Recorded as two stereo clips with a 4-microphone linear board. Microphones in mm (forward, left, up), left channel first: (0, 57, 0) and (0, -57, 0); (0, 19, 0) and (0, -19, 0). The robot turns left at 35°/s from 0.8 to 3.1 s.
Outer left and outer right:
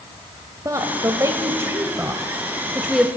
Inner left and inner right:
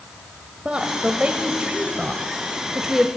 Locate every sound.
0.7 s a woman speaking: 30° right (ahead or behind), 1.4 m; by 3.1 s 5° right (ahead or behind), 1.4 m